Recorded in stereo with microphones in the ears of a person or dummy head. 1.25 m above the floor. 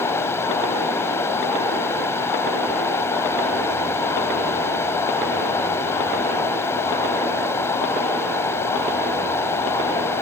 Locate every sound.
0.0 s running water: 15° left (ahead or behind)